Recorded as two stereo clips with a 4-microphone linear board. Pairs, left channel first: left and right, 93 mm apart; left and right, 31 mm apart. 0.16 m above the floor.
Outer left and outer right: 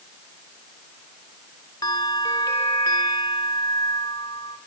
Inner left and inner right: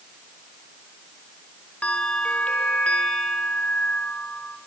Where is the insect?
I don't hear an insect.